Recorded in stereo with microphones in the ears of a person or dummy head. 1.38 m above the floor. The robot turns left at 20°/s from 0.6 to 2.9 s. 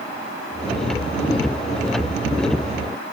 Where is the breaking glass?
No breaking glass in this recording.